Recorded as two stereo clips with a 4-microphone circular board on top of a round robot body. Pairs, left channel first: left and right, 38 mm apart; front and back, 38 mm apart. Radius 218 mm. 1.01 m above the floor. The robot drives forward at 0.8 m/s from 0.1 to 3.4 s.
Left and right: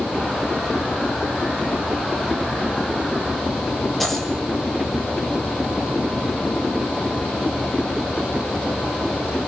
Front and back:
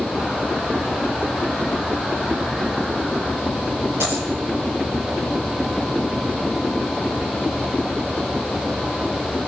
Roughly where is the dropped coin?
Behind.